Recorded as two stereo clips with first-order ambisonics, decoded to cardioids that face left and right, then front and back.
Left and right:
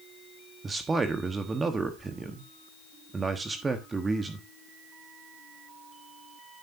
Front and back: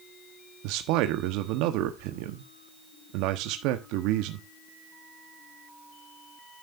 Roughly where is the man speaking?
Behind.